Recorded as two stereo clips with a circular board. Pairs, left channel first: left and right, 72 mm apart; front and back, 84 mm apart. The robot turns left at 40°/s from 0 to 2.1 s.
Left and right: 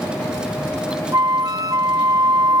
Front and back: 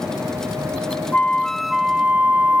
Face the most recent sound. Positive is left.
turn(degrees=-110)